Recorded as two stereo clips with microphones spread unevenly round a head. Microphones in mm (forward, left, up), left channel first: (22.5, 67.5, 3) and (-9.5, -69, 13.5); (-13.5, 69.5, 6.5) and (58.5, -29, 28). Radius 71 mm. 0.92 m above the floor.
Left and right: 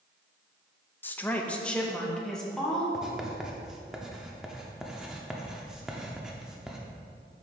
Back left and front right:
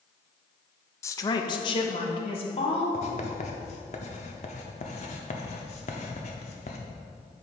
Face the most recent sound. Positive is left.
turn(degrees=175)